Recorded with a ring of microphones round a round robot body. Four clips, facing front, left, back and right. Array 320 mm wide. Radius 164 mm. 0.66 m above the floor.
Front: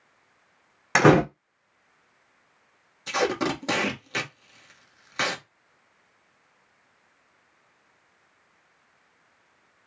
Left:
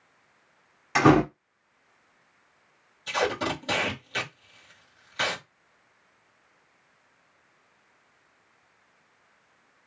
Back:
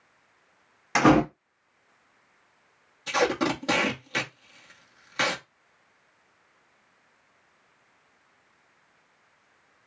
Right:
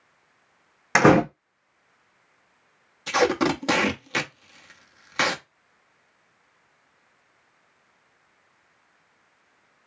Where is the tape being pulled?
85° right, 1.2 m.